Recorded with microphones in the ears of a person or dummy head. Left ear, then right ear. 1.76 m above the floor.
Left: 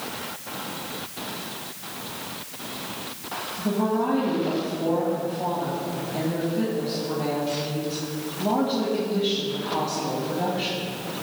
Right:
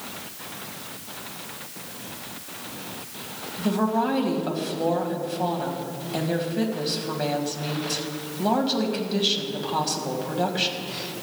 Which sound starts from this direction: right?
A woman speaking, at 3.6 s.